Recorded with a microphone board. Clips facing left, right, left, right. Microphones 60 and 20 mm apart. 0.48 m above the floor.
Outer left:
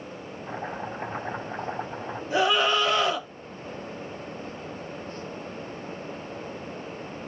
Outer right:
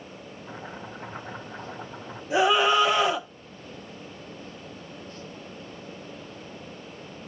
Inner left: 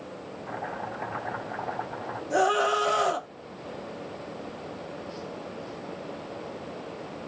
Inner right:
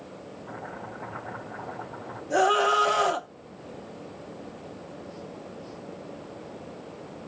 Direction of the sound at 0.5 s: 50° left (ahead or behind).